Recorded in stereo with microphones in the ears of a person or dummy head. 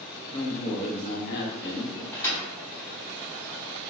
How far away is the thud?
About 1.8 m.